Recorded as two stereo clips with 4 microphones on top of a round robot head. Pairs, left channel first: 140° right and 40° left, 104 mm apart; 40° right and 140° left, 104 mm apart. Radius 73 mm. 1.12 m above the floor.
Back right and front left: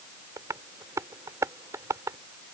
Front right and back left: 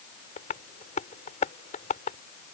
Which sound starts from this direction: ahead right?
Tapping, at 0.4 s.